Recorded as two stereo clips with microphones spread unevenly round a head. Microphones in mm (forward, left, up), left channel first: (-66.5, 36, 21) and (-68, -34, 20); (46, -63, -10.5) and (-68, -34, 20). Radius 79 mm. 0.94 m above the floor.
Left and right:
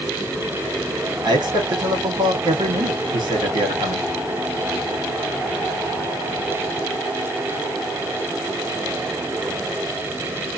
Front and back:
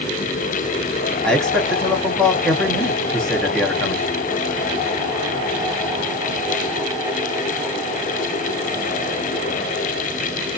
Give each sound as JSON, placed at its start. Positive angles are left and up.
{"t": 1.2, "sound": "a man speaking", "azimuth_deg": -95, "distance_m": 1.7}